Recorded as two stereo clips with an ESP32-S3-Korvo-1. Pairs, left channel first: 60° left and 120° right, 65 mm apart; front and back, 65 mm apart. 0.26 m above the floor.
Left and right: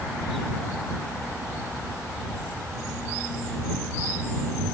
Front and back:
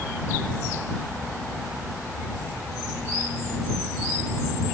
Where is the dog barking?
I don't hear a dog barking.